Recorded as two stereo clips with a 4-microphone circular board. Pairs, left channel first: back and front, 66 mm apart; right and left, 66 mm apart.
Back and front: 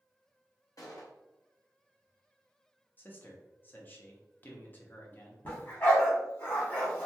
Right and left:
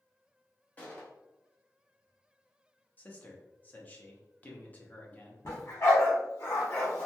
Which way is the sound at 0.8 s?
155° right.